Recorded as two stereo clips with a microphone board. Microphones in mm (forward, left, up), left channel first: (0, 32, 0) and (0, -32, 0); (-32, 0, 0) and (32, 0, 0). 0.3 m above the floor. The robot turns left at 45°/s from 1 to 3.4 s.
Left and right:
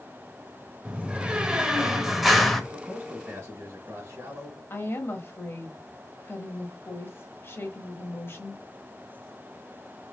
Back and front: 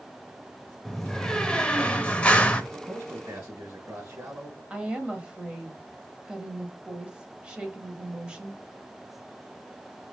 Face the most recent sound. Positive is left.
turn(degrees=70)